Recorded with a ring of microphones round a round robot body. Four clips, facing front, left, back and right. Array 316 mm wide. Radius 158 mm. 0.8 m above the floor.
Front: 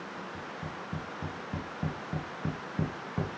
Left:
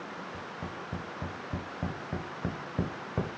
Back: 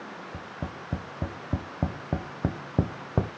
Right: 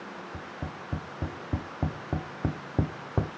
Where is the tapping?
150° right, 1.3 m.